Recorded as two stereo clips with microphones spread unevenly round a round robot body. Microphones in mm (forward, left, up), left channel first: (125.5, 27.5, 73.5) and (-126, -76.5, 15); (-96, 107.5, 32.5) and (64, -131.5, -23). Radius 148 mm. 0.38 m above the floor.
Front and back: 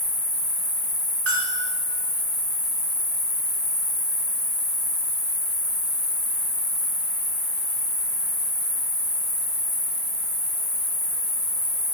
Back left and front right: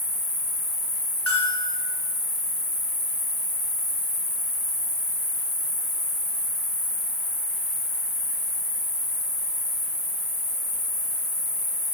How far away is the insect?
About 2 m.